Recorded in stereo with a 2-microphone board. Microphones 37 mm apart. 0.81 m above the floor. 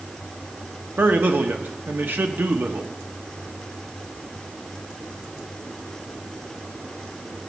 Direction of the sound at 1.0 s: 65° right (ahead or behind).